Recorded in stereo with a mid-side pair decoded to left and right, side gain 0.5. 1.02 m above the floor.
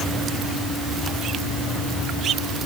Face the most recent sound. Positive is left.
No sound to turn to.